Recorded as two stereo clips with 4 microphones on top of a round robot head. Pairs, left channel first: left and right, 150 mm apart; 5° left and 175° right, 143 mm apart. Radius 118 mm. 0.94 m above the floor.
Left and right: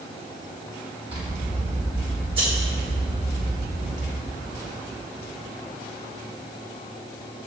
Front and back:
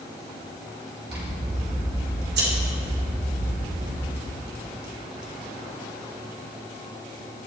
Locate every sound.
1.1 s scissors: 155° right, 1.9 m